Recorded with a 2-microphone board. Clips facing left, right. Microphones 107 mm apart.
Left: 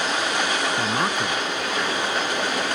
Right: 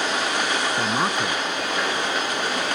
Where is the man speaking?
10° right (ahead or behind).